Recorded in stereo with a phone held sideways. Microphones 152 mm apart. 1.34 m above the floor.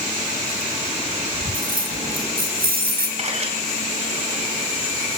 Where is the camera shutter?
45° right (ahead or behind), 10 m.